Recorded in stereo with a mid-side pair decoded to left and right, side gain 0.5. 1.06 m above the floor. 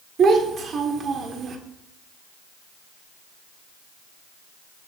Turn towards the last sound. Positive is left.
turn(degrees=-50)